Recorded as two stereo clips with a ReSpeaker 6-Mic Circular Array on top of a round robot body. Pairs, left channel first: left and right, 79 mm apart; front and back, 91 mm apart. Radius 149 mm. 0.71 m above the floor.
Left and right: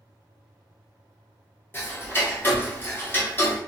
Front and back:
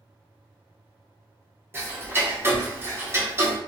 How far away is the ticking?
About 1.2 m.